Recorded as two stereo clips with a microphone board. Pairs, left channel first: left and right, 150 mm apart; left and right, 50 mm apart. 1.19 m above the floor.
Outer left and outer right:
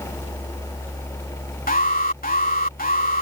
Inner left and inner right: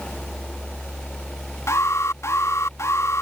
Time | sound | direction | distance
1.7 | an alarm | 70° left (ahead or behind) | ?